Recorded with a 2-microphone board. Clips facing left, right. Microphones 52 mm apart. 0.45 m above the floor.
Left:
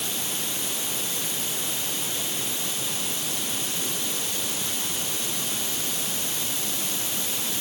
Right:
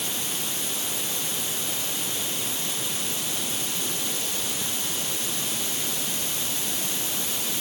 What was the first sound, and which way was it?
Only background noise.